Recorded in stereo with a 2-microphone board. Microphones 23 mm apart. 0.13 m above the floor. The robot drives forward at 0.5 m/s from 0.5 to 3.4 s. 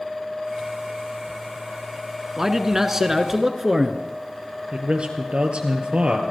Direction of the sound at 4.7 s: 55° right (ahead or behind).